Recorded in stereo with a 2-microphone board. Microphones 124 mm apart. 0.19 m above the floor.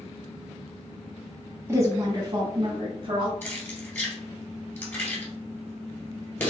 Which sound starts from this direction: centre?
Keys jangling, at 3.4 s.